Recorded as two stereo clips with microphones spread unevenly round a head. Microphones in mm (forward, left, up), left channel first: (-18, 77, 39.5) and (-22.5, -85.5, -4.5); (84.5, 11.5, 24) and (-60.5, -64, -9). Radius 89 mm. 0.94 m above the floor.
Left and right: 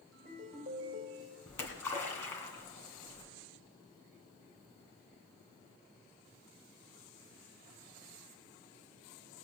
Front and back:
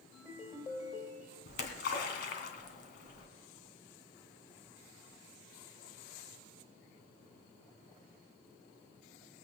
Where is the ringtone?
40° right, 3.5 m.